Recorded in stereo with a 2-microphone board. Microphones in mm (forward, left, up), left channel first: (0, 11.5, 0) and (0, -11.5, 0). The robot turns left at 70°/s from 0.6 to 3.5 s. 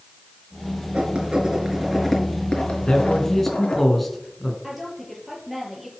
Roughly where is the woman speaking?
Centre.